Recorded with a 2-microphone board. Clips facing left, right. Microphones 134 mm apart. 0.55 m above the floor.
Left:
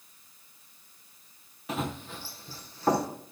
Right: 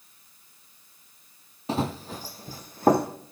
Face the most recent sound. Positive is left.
turn(degrees=-50)  # may be behind; listen again after turning